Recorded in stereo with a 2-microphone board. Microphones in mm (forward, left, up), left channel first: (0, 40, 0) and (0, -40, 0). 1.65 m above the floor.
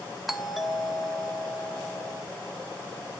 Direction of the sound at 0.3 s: 5° right (ahead or behind).